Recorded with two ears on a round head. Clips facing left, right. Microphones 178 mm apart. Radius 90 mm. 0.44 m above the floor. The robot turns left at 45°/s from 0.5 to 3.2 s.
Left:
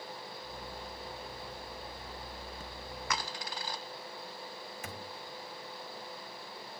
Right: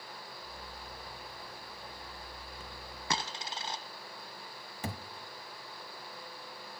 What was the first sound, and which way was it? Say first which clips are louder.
A dropped coin: right 2 dB; 25° right (ahead or behind).